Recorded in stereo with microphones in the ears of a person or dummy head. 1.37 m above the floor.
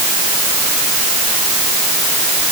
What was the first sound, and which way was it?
Only background noise.